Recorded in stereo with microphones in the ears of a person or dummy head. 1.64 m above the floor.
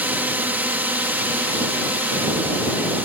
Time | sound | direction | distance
0.0 | a drone | 10° right (ahead or behind) | ?